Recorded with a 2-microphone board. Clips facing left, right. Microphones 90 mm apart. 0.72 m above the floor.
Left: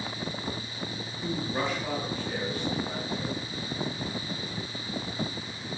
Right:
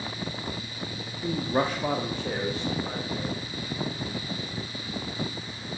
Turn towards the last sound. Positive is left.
turn(degrees=-80)